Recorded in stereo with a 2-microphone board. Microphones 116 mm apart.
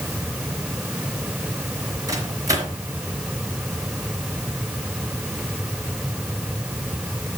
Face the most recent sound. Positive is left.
turn(degrees=-30)  # may be behind; listen again after turning